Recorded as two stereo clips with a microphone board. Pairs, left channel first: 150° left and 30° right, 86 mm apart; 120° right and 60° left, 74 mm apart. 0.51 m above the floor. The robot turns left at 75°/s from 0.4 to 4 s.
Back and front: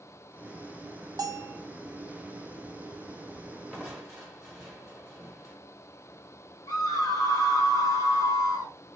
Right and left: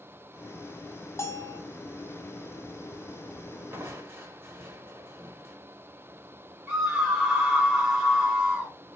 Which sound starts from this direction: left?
Crushing, at 3.7 s.